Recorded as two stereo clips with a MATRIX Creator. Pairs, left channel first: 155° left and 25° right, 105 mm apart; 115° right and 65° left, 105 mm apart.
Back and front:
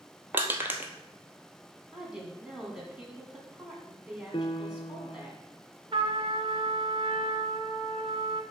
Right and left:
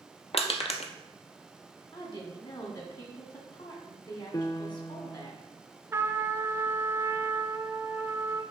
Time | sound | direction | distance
0.3 | crushing | 90° right | 0.8 m
1.9 | a woman speaking | 105° right | 2 m
4.3 | a piano | 165° right | 0.5 m
5.9 | a trumpet | 5° left | 0.6 m